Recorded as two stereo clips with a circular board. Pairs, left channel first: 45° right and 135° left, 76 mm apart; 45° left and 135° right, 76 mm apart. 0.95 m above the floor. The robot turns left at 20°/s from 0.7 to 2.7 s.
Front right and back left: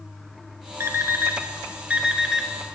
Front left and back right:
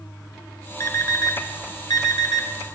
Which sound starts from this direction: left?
An alarm clock, at 0.8 s.